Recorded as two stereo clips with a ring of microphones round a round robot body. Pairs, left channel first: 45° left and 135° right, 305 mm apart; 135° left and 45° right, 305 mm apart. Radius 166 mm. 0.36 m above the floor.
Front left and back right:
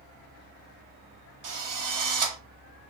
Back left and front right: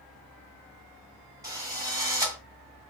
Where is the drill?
125° right, 1.8 m.